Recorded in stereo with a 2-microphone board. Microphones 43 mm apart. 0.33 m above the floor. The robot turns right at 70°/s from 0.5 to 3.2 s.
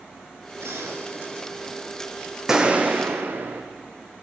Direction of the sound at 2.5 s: 170° right.